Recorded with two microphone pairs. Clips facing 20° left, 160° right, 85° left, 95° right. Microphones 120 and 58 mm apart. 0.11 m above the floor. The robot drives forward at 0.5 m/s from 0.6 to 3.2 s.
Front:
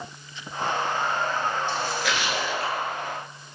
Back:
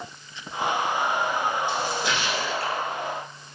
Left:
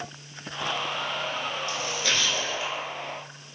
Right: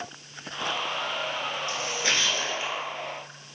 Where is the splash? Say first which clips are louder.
Back 1 dB, right 1 dB; 100° right, 0.8 m; by 2.9 s 150° right, 1.1 m.